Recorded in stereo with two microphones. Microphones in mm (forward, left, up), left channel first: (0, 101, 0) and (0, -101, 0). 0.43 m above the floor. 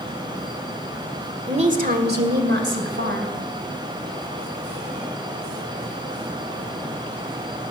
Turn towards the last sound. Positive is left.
turn(degrees=-70)  # may be behind; listen again after turning